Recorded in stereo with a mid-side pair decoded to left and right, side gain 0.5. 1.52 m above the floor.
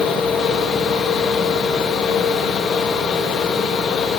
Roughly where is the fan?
Ahead left.